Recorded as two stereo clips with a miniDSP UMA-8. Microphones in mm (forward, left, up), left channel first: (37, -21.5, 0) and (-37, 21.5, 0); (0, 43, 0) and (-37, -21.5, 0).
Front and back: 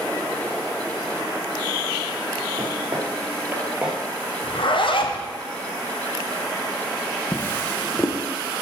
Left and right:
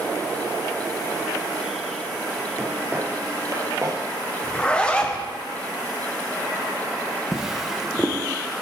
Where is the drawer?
40° right, 0.7 m.